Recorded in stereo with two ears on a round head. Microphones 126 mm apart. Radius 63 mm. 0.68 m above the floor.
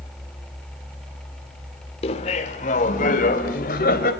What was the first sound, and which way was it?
Laughter, 45° left (ahead or behind).